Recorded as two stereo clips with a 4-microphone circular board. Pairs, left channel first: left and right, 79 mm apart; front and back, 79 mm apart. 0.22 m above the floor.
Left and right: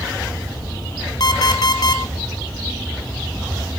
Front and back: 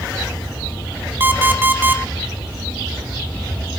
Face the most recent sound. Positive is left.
turn(degrees=115)